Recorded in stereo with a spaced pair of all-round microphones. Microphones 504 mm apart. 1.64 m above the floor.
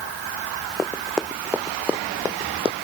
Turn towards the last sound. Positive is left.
turn(degrees=-10)  # may be behind; listen again after turning